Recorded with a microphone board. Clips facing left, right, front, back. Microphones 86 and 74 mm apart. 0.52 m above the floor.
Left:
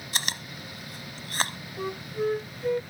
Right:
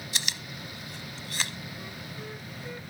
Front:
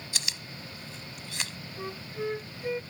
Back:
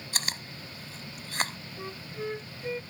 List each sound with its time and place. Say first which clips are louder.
0.1 s chewing: left 5 dB, back 4 dB; 135° left
1.8 s a flute: left 11 dB, front 3 dB; 80° left